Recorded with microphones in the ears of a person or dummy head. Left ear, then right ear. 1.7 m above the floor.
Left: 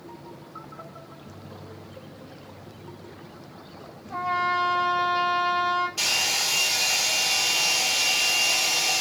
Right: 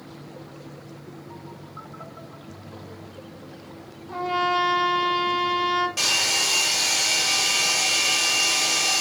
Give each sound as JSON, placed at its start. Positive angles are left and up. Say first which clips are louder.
{"t": 4.1, "sound": "a trumpet", "louder": "right 1 dB", "side_deg": -85, "distance_m": 5.5}
{"t": 6.0, "sound": "a hair dryer", "louder": "right 2 dB", "side_deg": -75, "distance_m": 4.5}